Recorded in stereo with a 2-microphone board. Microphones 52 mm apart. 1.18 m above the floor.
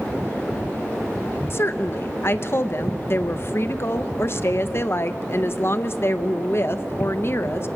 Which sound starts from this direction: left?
A woman speaking, at 1.5 s.